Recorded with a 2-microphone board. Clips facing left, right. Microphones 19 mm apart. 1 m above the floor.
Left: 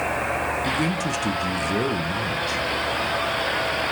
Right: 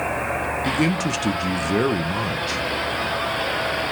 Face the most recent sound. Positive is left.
turn(degrees=-20)  # may be behind; listen again after turning